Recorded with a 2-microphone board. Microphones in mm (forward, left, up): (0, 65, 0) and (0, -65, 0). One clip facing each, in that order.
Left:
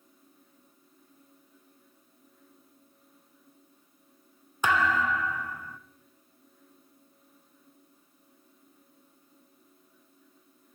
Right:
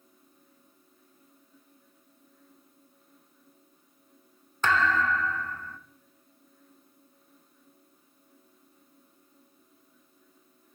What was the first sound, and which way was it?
A thud, 15° left (ahead or behind).